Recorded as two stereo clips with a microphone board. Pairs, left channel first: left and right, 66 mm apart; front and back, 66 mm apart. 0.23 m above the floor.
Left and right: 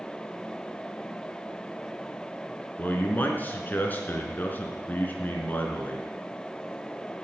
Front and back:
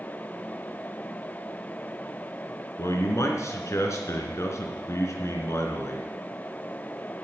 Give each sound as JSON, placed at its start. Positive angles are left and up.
{"t": 2.8, "sound": "a man speaking", "azimuth_deg": 35, "distance_m": 3.0}